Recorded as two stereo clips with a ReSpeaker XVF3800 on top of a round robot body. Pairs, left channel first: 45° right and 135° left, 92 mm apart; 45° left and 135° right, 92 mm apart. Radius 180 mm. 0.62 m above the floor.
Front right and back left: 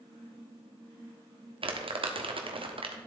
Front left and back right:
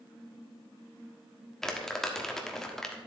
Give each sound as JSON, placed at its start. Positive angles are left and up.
{"t": 1.6, "sound": "crumpling", "azimuth_deg": 130, "distance_m": 1.4}